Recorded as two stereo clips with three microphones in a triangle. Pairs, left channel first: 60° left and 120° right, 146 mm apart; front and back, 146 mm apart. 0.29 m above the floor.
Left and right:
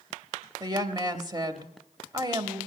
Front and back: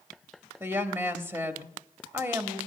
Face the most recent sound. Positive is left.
turn(degrees=-125)